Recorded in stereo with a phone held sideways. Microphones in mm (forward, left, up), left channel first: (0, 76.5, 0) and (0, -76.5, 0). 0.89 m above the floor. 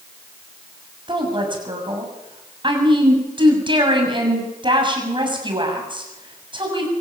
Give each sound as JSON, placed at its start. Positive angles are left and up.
{"t": 1.1, "sound": "a woman speaking", "side_deg": -30, "distance_m": 7.0}